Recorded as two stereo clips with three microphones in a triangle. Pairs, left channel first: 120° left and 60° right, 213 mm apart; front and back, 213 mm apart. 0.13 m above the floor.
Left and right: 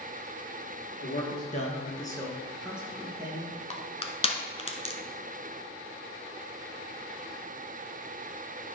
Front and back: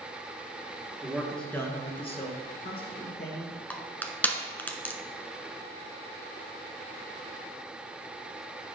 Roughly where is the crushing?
Left.